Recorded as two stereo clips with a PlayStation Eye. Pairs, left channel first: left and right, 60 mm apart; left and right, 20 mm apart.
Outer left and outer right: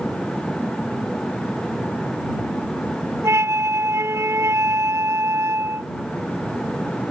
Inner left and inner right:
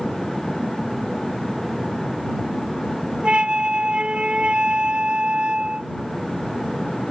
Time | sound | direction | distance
3.2 | a flute | 55° right (ahead or behind) | ?